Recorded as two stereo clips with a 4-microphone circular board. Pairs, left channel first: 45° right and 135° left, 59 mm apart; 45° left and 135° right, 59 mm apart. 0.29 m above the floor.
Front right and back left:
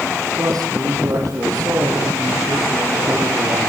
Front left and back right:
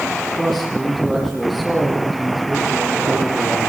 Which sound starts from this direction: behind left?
A man speaking, at 0.4 s.